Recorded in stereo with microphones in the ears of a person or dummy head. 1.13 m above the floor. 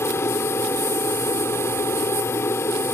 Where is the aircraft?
10° left (ahead or behind).